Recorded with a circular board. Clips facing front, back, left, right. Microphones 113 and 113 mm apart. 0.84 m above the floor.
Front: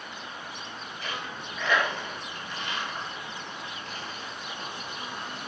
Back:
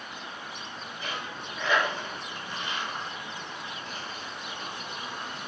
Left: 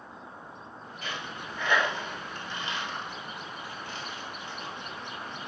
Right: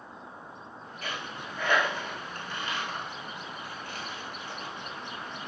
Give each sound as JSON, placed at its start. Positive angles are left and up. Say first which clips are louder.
{"t": 1.0, "sound": "a dropped coin", "louder": "even, even", "azimuth_deg": -110, "distance_m": 1.2}